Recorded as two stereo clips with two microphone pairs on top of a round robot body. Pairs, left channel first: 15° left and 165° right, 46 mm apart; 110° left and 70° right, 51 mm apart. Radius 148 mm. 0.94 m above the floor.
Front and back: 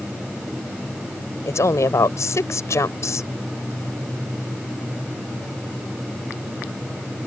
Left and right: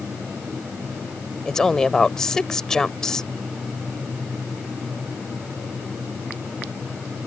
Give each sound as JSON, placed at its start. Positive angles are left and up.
{"t": 1.4, "sound": "a woman speaking", "azimuth_deg": 25}